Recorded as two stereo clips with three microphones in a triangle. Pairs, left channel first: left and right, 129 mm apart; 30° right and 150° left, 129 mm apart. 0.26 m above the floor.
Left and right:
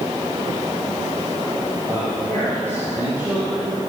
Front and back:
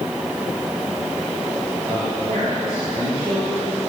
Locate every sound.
1.9 s a man speaking: 160° right, 9.5 m